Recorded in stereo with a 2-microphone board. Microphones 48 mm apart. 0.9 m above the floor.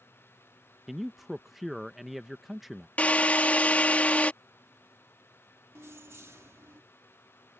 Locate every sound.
0.9 s a man speaking: 5° right (ahead or behind)
3.0 s a drill: 30° left (ahead or behind)
5.8 s keys jangling: 60° right (ahead or behind)